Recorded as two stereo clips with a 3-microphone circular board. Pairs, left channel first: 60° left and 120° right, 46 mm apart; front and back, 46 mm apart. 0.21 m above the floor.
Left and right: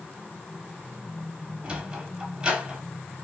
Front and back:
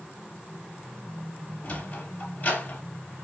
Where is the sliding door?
55° right, 0.8 m.